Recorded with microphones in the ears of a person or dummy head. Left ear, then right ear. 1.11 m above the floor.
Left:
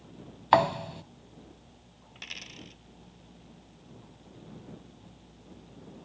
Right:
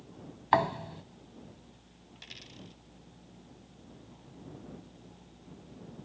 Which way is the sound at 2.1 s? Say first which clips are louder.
Left 7 dB; 20° left (ahead or behind).